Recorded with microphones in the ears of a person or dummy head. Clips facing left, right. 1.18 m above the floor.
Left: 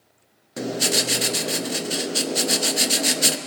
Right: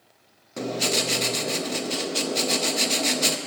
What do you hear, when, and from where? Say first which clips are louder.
0.6 s writing: left 1 dB; 5° left (ahead or behind), 0.5 m